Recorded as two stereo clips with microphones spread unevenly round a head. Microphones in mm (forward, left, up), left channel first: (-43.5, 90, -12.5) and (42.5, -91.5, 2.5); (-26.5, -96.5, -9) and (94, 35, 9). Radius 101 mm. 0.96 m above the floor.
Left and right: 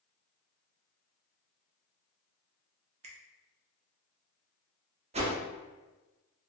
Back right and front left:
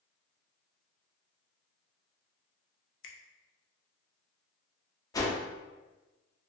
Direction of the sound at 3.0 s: 125° right.